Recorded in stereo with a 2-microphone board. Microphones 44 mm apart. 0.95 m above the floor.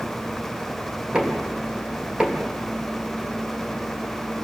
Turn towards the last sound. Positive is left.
turn(degrees=-20)  # may be behind; listen again after turning